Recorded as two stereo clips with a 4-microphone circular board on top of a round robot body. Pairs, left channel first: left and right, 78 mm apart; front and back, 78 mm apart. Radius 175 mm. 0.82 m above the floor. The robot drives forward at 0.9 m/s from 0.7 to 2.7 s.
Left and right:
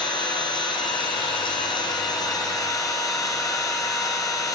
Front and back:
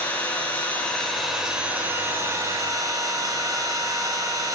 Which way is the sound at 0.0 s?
70° left.